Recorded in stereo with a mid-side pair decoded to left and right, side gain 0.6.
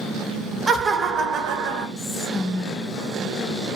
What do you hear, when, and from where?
0.7 s laughter: 20° right, 0.6 m; by 1.9 s 75° right, 0.8 m
2.0 s whispering: 20° left, 0.9 m